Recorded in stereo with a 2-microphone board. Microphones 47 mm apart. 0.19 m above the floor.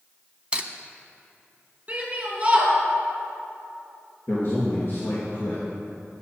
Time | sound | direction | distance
0.5 | cutlery clinking | 25° right (ahead or behind) | 0.7 m
1.9 | a shout | 25° right (ahead or behind) | 4.5 m
4.3 | a man speaking | 55° left (ahead or behind) | 3 m